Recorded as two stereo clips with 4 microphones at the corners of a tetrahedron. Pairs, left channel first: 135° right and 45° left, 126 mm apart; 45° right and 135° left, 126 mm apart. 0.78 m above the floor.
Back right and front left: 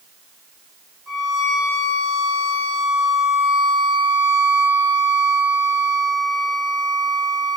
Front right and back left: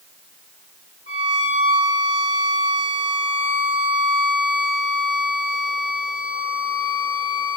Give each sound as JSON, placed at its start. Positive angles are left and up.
{"t": 1.1, "sound": "a violin", "azimuth_deg": -45, "distance_m": 2.5}